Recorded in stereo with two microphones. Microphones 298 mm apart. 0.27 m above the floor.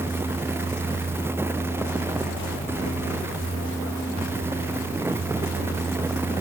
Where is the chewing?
I don't hear chewing.